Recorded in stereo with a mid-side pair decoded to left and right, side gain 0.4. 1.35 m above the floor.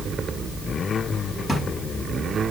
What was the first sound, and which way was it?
A drawer, 10° left.